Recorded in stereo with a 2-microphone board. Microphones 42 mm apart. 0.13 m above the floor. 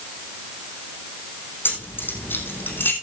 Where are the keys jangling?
55° left (ahead or behind), 5.5 m.